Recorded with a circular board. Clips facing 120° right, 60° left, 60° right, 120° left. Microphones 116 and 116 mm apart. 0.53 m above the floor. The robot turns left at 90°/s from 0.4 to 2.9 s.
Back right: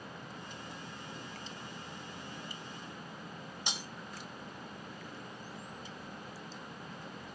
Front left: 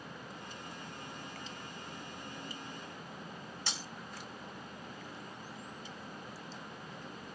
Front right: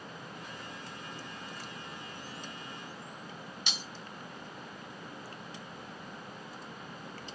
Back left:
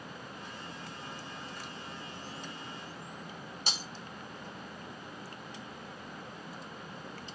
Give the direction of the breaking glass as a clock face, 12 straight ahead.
6 o'clock.